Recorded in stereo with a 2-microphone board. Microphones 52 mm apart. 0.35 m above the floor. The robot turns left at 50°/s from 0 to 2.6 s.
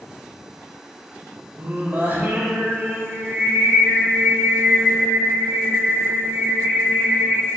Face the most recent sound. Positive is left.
turn(degrees=-115)